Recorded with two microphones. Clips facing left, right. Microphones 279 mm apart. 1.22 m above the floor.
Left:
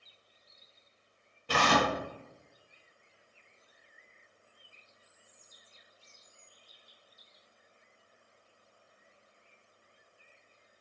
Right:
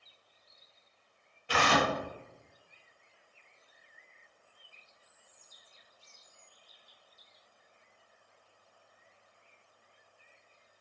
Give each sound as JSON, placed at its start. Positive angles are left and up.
{"t": 1.5, "sound": "tearing paper", "side_deg": 50, "distance_m": 0.5}